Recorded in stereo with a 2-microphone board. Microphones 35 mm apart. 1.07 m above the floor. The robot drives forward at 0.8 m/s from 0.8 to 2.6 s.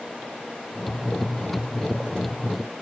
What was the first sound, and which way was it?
Only background noise.